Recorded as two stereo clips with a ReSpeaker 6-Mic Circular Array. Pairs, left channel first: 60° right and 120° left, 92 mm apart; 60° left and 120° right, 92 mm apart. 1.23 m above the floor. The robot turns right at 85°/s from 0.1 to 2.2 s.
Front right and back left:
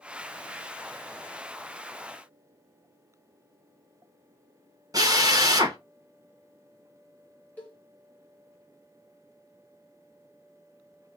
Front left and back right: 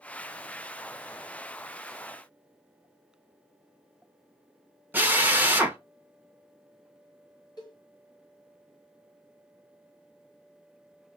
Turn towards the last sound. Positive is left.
turn(degrees=15)